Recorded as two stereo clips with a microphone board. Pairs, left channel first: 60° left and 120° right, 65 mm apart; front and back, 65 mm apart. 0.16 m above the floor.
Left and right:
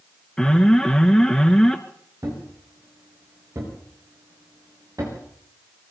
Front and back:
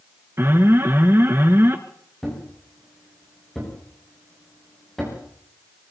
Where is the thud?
85° right, 8 m.